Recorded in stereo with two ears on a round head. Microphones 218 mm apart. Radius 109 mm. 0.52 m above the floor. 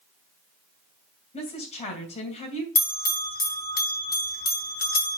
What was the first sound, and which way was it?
A woman speaking, 25° left (ahead or behind).